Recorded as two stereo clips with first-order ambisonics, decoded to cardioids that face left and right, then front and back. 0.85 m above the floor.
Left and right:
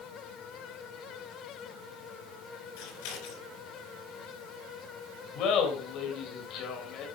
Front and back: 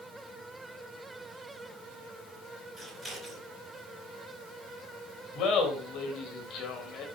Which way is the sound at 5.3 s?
50° left.